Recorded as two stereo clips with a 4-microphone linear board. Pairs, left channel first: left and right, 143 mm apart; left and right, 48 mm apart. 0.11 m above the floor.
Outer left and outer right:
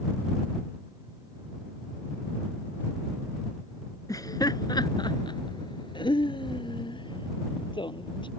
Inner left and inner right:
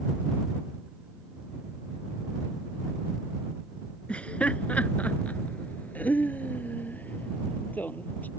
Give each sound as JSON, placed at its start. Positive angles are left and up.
{"t": 4.1, "sound": "laughter", "side_deg": 25}